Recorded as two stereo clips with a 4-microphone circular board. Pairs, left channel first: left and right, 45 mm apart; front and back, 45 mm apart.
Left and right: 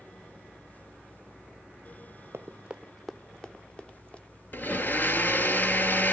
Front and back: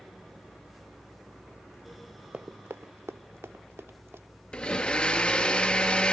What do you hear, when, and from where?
2.3 s running footsteps: 125° right, 0.6 m; by 4.2 s 155° left, 1.9 m
4.5 s a blender: 60° left, 1.4 m